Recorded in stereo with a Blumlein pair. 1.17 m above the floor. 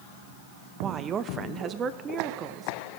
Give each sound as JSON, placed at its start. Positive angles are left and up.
{"t": 0.8, "sound": "a woman speaking", "azimuth_deg": -25, "distance_m": 0.8}